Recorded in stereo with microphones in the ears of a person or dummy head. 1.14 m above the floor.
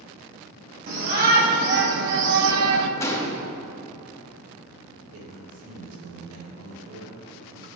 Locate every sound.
0.9 s a shout: 45° right (ahead or behind), 2.5 m; by 2.9 s 65° right (ahead or behind), 0.6 m
3.0 s a gunshot: 15° left (ahead or behind), 0.7 m
5.1 s a man speaking: 80° right, 2.5 m